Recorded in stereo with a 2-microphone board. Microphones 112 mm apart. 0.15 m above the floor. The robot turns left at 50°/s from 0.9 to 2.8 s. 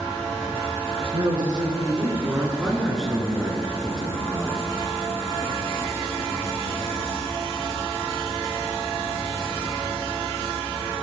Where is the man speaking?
95° right, 2.5 m; by 4.7 s straight behind, 2.5 m.